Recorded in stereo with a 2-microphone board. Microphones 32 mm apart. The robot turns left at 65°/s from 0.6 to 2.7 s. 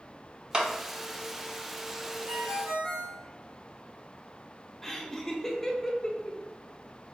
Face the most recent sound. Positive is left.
turn(degrees=10)  # may be behind; listen again after turning